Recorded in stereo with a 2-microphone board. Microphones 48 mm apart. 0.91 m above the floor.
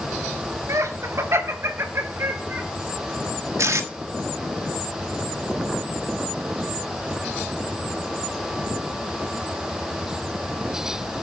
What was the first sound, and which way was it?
Laughter, 80° right.